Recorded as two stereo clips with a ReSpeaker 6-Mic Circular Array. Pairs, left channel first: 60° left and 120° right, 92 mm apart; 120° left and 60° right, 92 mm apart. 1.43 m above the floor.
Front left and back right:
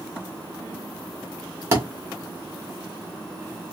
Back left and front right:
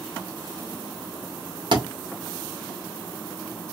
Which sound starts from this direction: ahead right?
A thud, at 1.7 s.